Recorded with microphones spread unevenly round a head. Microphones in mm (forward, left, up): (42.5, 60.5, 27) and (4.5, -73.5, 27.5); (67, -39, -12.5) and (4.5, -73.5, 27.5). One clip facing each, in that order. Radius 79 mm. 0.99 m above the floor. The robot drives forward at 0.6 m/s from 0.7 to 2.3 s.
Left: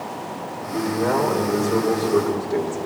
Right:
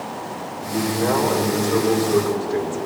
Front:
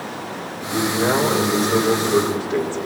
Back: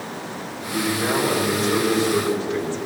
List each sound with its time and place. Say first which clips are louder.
0.7 s a man speaking: right 1 dB, front 3 dB; 5° left, 6.5 m